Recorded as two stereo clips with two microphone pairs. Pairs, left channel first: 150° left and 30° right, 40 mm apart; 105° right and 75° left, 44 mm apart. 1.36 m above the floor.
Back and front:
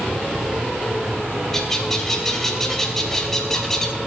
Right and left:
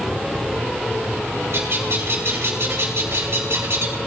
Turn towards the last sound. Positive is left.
turn(degrees=70)